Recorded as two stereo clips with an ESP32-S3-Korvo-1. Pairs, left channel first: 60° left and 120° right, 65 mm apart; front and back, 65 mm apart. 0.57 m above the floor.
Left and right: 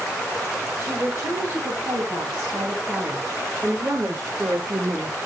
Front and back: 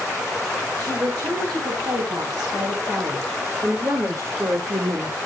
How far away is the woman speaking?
About 5.5 m.